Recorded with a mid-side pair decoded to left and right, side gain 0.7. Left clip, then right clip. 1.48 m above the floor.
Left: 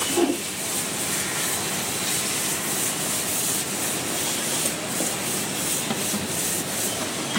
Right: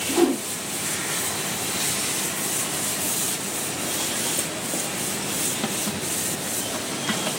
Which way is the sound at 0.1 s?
25° right.